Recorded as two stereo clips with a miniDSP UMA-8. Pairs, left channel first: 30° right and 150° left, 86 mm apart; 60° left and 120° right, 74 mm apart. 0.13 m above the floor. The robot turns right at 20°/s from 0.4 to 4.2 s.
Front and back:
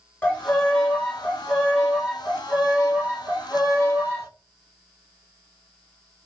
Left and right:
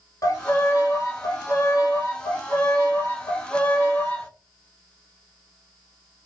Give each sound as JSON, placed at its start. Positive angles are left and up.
{"t": 0.2, "sound": "a violin", "azimuth_deg": 40, "distance_m": 1.1}